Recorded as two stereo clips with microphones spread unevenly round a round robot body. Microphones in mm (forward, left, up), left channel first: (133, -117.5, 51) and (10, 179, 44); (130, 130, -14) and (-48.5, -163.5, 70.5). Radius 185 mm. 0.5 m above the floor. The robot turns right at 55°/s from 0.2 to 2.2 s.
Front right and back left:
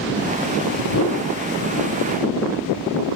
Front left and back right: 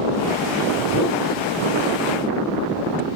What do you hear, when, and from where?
0.9 s a whoosh: 110° right, 2.5 m; by 1.2 s 95° right, 2.5 m